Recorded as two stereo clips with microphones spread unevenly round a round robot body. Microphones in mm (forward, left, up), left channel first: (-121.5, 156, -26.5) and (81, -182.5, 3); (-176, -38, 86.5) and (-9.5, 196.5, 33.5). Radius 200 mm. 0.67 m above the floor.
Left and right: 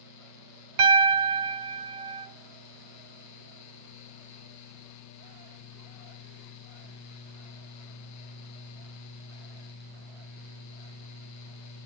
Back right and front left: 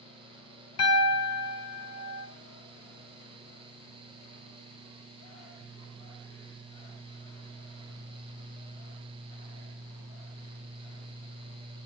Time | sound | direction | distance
0.8 | a piano | 70° right | 1.4 m